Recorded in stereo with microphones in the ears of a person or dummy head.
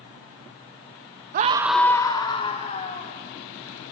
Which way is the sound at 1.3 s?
45° right (ahead or behind).